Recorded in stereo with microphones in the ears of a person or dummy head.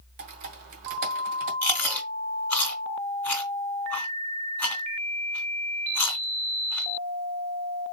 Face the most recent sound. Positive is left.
turn(degrees=10)  # may be behind; listen again after turning